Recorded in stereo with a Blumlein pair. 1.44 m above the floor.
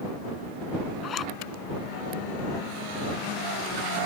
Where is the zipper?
25° left.